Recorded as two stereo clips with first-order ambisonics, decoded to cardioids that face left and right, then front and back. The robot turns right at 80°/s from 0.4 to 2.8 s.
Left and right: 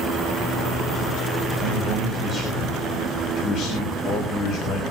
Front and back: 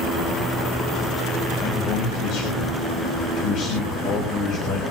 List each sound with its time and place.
1.6 s a man speaking: 65° right, 5.5 m; by 4.8 s 30° left, 5.5 m